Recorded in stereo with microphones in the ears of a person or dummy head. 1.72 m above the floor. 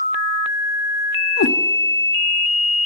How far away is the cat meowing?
About 2 m.